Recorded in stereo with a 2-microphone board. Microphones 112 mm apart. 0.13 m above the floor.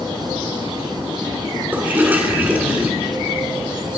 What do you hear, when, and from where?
1.7 s a toilet flushing: 15° right (ahead or behind), 1.0 m